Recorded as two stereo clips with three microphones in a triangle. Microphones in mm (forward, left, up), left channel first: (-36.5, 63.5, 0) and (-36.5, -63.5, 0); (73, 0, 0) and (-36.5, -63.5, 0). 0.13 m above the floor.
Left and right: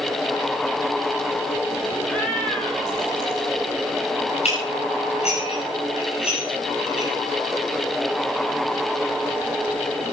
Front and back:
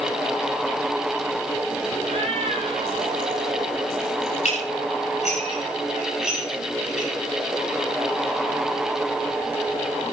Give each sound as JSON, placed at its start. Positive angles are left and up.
{"t": 2.0, "sound": "a cat meowing", "azimuth_deg": 170, "distance_m": 2.5}
{"t": 4.5, "sound": "dishes clattering", "azimuth_deg": 55, "distance_m": 8.5}